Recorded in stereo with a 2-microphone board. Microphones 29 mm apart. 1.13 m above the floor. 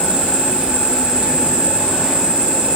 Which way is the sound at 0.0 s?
30° right (ahead or behind).